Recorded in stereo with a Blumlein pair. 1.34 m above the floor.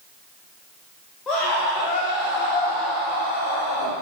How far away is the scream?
About 1.7 m.